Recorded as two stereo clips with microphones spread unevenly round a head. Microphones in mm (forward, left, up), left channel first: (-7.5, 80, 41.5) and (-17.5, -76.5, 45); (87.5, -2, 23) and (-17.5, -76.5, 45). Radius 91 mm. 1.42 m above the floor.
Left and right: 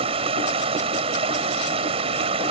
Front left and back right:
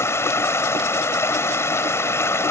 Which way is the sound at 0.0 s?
35° right.